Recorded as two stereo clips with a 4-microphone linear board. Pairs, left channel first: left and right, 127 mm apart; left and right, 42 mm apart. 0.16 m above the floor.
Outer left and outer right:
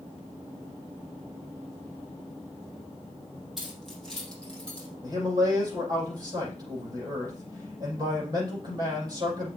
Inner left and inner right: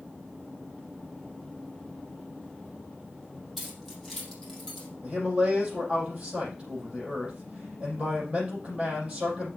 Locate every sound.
3.6 s keys jangling: centre (ahead or behind), 5 m; by 4.9 s 10° left (ahead or behind), 5 m
5.0 s a man speaking: 30° right (ahead or behind), 7 m